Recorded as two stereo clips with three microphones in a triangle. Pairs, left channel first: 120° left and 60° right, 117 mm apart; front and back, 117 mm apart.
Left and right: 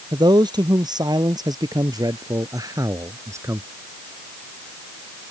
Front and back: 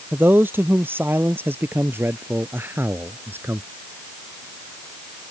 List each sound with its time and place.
0.1 s a man speaking: 110° right; by 3.7 s 120° right